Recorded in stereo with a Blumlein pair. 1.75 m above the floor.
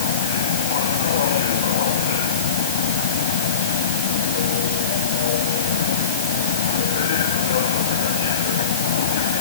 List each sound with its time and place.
0.0 s a machine running: 60° left